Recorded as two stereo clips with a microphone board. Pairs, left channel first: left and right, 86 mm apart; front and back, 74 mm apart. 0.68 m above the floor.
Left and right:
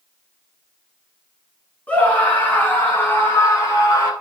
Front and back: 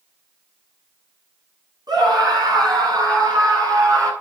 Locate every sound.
1.9 s a scream: 160° left, 9 m; by 4.1 s 140° left, 6.5 m